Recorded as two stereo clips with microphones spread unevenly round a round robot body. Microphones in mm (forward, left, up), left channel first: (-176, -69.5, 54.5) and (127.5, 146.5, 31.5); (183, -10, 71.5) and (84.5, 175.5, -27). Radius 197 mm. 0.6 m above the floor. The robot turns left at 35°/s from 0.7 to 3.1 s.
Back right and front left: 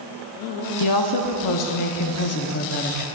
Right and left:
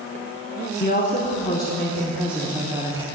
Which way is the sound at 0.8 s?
130° right.